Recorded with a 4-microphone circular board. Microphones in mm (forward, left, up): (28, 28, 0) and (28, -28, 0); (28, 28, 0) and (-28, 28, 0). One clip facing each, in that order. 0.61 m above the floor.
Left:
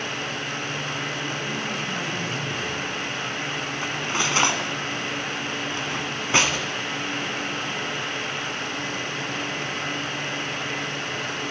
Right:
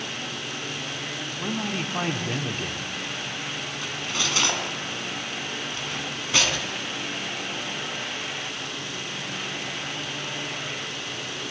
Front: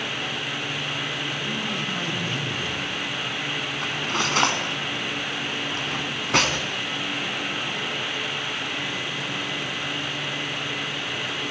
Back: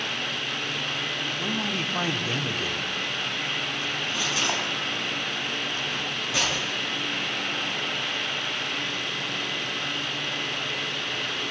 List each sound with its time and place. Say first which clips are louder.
1.4 s a man speaking: left 1 dB, even; 130° right, 1.6 m
3.8 s cutlery clinking: left 4 dB, front 3 dB; 30° left, 3 m